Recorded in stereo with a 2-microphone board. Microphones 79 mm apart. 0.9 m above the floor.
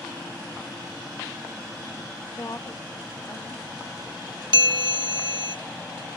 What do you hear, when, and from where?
2.4 s a woman speaking: 50° left (ahead or behind), 1.1 m; by 4.4 s 40° left (ahead or behind), 3.5 m
4.5 s a bell: 75° right (ahead or behind), 0.9 m